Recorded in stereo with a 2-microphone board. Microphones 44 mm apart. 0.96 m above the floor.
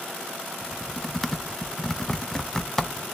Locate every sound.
0.6 s typing on a keyboard: 10° left (ahead or behind), 0.5 m